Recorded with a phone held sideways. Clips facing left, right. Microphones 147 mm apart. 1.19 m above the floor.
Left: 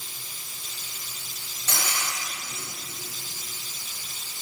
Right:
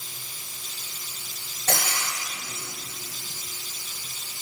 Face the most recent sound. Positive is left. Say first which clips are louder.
# right 3 dB
turn(degrees=-65)  # may be behind; listen again after turning